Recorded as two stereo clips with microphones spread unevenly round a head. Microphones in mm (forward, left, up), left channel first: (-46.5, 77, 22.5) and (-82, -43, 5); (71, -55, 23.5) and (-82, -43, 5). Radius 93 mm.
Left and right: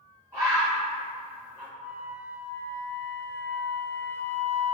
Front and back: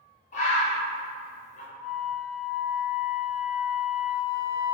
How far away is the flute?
About 1.1 m.